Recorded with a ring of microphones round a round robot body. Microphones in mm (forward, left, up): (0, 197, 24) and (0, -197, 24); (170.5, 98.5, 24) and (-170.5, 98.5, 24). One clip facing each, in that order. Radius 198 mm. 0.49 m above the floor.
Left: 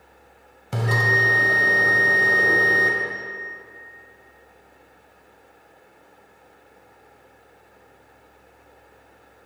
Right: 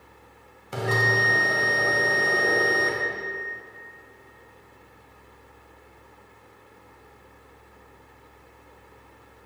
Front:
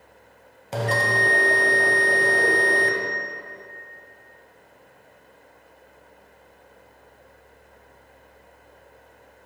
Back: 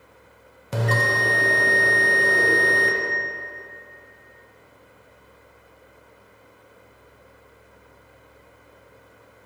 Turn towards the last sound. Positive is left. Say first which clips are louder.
# even, even
turn(degrees=105)